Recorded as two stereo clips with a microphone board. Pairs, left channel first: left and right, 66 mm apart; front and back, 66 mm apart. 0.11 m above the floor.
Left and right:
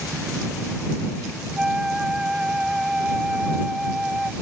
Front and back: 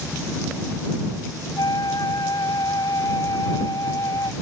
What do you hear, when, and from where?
1.6 s a flute: 10° right